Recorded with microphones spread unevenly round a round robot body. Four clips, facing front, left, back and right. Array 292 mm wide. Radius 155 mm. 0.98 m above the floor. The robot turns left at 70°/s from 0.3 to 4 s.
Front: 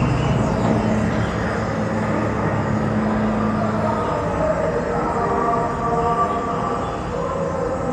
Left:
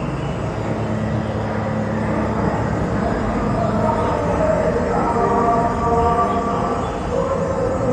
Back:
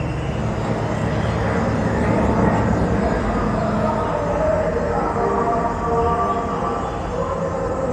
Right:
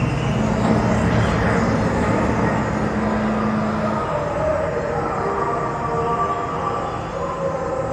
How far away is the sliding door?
I don't hear a sliding door.